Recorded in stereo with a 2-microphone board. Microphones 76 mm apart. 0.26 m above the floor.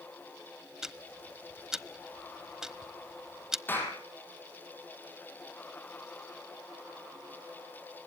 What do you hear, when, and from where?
0.8 s ticking: 5° right (ahead or behind), 0.9 m
3.7 s a clap: 25° left (ahead or behind), 6 m